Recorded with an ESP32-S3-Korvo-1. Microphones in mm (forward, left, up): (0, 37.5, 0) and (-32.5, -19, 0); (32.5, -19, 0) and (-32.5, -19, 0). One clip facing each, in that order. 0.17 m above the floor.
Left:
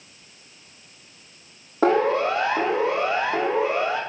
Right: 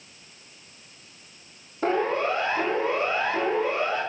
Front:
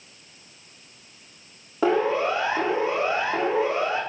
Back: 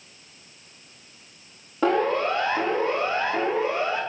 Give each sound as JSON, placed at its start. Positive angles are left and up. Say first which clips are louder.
{"t": 1.8, "sound": "a siren", "louder": "left 5 dB, even", "azimuth_deg": 85, "distance_m": 4.5}